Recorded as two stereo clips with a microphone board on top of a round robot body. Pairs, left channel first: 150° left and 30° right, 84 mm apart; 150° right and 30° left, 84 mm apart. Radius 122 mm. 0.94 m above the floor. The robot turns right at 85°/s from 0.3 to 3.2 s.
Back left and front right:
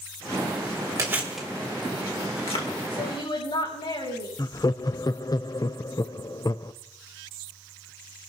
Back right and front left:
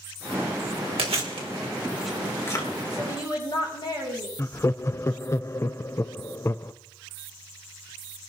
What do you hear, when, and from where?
1.0 s chewing: 25° left, 2.5 m; by 2.7 s 165° left, 2.5 m
2.9 s a woman speaking: 145° left, 7 m; by 4.3 s 170° left, 7 m
4.4 s laughter: 165° left, 0.5 m